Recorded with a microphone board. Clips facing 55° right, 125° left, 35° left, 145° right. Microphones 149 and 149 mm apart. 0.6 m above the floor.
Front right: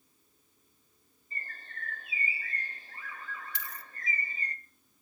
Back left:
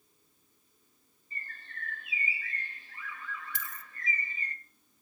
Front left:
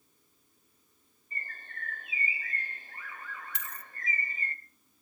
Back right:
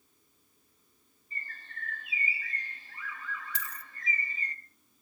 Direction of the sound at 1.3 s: 5° right.